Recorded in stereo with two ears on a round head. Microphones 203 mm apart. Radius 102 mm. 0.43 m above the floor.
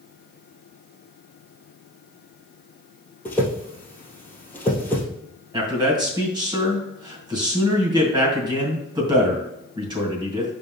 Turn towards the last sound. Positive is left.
turn(degrees=-20)  # may be behind; listen again after turning